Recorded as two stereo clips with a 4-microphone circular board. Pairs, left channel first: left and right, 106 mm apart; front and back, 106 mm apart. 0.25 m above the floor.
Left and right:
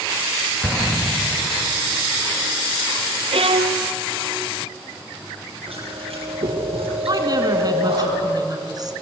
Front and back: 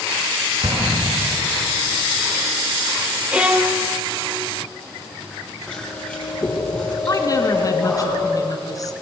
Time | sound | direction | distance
0.6 | an explosion | 170° left | 3.5 m
3.3 | a violin | 100° right | 1.3 m
5.7 | chewing | 80° right | 7.5 m
7.1 | a woman speaking | 50° right | 3 m